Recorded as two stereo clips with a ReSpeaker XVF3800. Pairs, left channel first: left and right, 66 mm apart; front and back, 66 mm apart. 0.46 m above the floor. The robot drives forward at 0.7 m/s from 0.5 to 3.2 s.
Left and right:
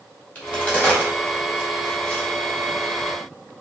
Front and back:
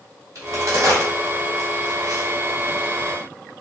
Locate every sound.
0.3 s a crack: 150° left, 2.5 m; by 2.3 s 160° left, 3.5 m